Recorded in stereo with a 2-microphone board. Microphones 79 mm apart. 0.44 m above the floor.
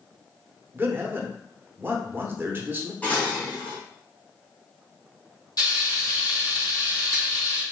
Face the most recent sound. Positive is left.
turn(degrees=55)  # may be behind; listen again after turning